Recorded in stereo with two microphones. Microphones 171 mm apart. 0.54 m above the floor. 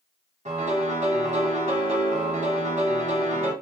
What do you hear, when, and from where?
0.5 s a piano: 40° right (ahead or behind), 1.1 m